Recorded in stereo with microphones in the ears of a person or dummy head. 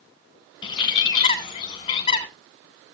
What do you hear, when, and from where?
0.6 s a bird: 35° left (ahead or behind), 1.3 m